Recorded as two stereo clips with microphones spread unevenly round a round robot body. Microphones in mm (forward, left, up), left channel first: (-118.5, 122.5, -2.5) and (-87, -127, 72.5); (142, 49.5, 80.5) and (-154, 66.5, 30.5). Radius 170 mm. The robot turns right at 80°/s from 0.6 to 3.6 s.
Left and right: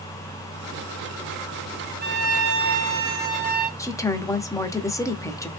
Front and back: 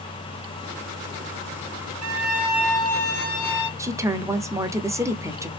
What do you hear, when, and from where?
2.0 s a violin: 140° right, 0.8 m; by 3.7 s 15° right, 0.8 m
3.8 s a woman speaking: 125° left, 0.9 m